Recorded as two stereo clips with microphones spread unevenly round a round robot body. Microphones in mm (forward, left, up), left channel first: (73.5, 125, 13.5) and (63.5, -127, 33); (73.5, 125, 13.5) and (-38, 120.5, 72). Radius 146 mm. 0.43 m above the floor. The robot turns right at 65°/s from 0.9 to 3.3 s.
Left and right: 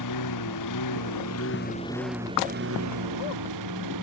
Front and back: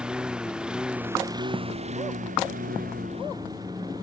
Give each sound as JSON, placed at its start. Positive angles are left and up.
{"t": 0.0, "sound": "a lawn mower", "azimuth_deg": 100}